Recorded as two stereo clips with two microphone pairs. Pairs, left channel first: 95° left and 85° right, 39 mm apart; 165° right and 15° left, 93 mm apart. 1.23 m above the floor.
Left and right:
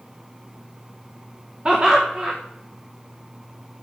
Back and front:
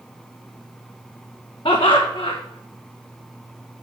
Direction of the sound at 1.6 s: 150° right.